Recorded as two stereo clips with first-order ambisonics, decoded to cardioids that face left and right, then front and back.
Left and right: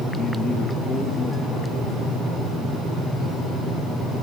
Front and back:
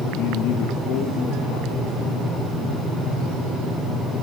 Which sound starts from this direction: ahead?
A man speaking, at 0.2 s.